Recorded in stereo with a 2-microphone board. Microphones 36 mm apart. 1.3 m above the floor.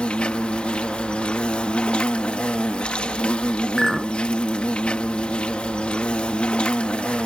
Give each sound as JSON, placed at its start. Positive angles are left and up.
{"t": 0.0, "sound": "an insect", "side_deg": 35}
{"t": 3.8, "sound": "a clink", "side_deg": 0}